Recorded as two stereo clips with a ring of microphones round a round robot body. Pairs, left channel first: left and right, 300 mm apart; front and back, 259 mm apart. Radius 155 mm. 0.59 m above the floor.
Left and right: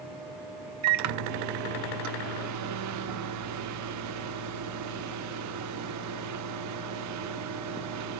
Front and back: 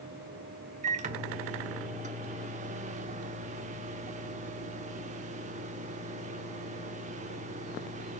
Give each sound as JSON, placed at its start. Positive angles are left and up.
{"t": 0.8, "sound": "a microwave", "azimuth_deg": -115, "distance_m": 0.9}